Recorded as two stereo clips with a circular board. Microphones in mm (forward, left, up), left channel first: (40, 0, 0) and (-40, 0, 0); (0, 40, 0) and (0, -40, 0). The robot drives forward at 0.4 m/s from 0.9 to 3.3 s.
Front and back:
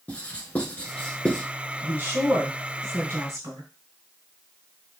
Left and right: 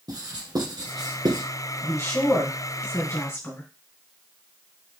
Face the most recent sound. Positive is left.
turn(degrees=150)